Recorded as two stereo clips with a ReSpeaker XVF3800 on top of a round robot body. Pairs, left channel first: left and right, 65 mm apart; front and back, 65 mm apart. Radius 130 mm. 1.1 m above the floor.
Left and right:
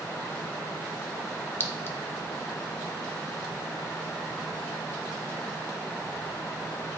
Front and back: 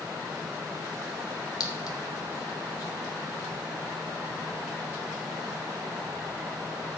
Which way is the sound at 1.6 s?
30° left.